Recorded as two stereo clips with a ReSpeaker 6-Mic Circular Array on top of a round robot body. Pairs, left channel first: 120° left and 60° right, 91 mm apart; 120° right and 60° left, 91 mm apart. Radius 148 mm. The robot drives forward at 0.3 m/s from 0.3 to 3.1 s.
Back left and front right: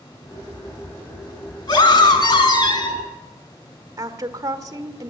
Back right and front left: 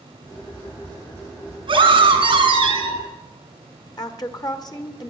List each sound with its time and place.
1.7 s a scream: 85° left, 5 m; by 3.0 s 90° left, 5 m
4.0 s a woman speaking: 105° right, 1.3 m